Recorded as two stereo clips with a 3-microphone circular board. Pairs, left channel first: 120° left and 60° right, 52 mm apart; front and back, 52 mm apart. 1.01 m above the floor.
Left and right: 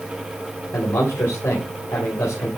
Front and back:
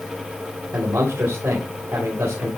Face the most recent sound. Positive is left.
turn(degrees=150)